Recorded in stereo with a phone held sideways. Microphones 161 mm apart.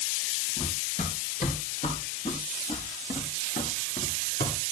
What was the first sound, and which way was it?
Running footsteps, 50° left (ahead or behind).